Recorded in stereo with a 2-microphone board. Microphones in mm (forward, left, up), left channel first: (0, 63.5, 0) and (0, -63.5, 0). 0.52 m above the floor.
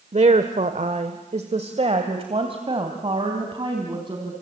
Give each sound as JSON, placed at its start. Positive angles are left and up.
{"t": 0.1, "sound": "a woman speaking", "side_deg": -60, "distance_m": 1.3}